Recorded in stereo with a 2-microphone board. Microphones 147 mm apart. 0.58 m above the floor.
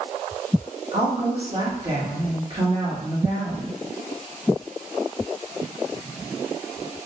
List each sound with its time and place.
0.9 s a woman speaking: 35° right (ahead or behind), 1.5 m